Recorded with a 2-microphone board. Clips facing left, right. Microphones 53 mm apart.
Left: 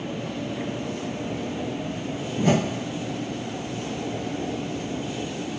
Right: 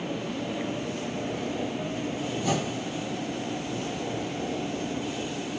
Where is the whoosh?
45° left (ahead or behind), 0.8 m.